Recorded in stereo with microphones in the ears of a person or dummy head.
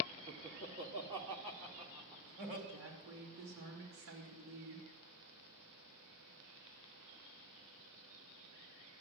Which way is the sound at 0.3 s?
45° right (ahead or behind).